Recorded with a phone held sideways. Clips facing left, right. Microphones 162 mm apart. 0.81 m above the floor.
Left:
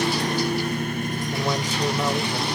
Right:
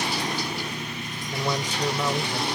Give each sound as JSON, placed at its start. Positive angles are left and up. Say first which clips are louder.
{"t": 0.0, "sound": "a lawn mower", "louder": "left 6 dB", "side_deg": 50}
{"t": 1.3, "sound": "a man speaking", "louder": "even", "side_deg": 10}